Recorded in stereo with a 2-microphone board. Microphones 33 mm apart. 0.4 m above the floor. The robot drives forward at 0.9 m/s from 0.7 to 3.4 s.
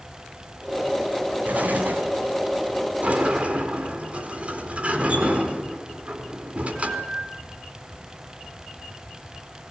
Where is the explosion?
55° right (ahead or behind), 3 m; by 2.1 s 60° right (ahead or behind), 3 m.